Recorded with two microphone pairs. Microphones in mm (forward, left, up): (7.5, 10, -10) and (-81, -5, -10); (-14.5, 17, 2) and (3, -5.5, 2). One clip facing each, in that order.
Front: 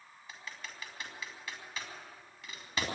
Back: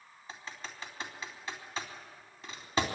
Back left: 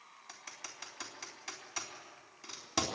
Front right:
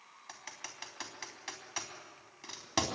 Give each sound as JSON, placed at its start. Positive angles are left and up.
{"t": 0.3, "sound": "typing on a keyboard", "azimuth_deg": -115, "distance_m": 3.5}